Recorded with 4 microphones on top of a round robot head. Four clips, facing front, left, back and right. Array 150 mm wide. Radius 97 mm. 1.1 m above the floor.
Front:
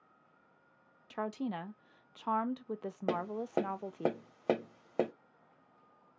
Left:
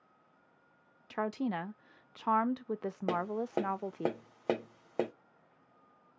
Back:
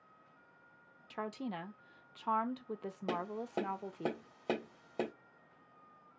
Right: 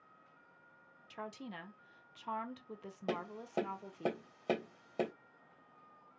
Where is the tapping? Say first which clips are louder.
Left 6 dB, front 4 dB; 35° left, 1.0 m.